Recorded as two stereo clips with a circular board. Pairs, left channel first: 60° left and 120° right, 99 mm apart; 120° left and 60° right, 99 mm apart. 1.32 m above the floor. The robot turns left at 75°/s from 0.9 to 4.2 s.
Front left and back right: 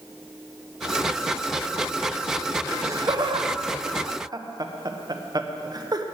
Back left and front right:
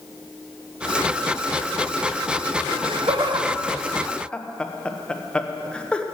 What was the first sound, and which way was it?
Laughter, 50° right.